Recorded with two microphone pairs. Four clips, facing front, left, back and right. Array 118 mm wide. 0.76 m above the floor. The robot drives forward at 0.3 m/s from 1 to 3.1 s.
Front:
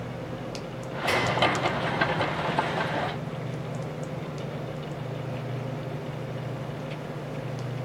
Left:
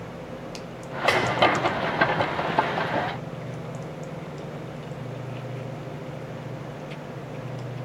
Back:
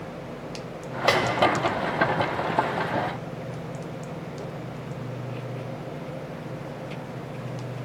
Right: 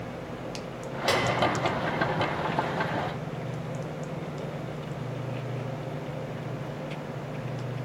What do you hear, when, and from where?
1.1 s a snare drum: 140° left, 1.0 m